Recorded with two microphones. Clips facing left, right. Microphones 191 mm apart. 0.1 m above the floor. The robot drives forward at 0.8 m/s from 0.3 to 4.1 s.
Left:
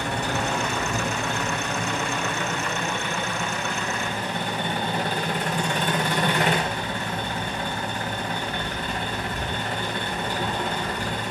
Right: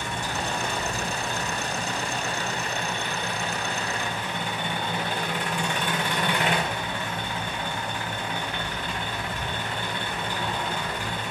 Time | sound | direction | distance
0.0 | an engine running | 75° left (ahead or behind) | 2.5 m